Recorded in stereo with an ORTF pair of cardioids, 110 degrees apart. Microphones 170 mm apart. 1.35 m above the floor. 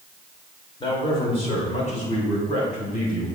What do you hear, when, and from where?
0.8 s a man speaking: 30° left, 4 m; by 3.3 s 55° left, 6 m